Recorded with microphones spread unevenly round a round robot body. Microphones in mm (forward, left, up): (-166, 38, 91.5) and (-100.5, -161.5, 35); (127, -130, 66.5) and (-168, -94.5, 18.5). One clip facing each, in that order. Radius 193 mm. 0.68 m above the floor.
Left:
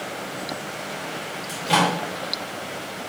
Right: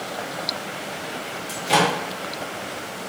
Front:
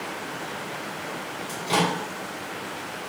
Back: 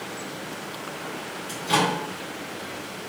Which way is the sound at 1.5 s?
125° right.